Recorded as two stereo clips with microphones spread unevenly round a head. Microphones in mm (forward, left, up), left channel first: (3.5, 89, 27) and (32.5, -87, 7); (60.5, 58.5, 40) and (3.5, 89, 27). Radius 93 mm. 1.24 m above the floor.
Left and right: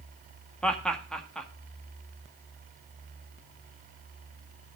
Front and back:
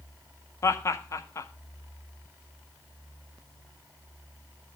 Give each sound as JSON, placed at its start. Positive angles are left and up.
{"t": 0.6, "sound": "laughter", "azimuth_deg": 15, "distance_m": 1.7}